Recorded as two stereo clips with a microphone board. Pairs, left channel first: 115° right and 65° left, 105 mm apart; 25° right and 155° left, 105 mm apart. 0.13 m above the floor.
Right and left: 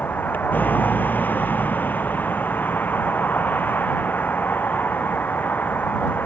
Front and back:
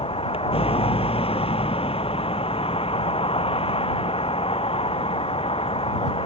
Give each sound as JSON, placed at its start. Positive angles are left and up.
{"t": 0.0, "sound": "a vehicle", "azimuth_deg": -40}